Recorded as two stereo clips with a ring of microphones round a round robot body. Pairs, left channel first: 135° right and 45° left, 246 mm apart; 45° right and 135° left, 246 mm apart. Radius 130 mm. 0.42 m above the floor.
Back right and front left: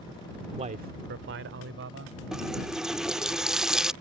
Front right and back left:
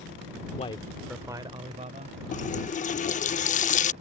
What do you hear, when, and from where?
0.6 s a man speaking: 5° right; by 2.2 s 80° left
2.3 s a running tap: 40° right